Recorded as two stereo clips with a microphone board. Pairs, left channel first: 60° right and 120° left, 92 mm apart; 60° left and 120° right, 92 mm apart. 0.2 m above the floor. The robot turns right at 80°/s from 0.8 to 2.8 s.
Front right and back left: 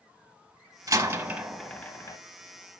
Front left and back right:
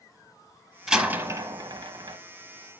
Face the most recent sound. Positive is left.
turn(degrees=-50)